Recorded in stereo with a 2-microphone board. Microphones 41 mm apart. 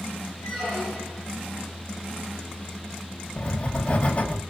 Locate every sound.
0.4 s a squeak: 10° left (ahead or behind), 2 m
3.4 s writing: 30° left (ahead or behind), 0.7 m